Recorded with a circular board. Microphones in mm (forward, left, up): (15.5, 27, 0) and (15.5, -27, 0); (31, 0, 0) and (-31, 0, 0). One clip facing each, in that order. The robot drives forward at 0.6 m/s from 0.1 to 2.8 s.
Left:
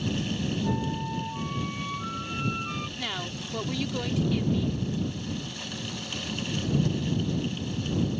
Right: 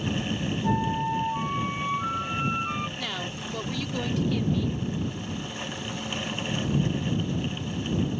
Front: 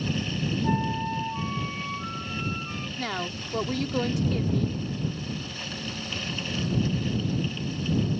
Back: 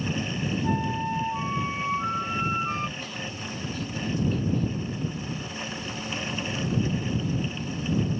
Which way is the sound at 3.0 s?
5° left.